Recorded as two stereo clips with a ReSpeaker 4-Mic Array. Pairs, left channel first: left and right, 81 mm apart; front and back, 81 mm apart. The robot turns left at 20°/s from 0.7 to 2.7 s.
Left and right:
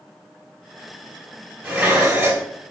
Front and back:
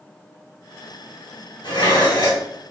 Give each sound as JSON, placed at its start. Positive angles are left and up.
{"t": 1.6, "sound": "dishes clattering", "azimuth_deg": -10, "distance_m": 2.5}